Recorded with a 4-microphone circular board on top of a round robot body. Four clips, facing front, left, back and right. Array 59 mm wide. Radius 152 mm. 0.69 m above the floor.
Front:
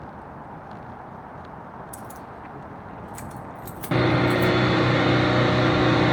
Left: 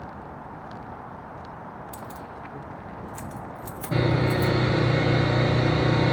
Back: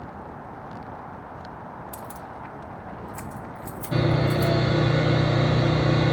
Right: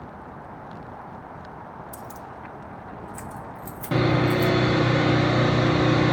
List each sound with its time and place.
1.9 s keys jangling: 120° left, 0.5 m; by 4.5 s 10° left, 1.3 m
3.9 s sawing: 25° right, 0.6 m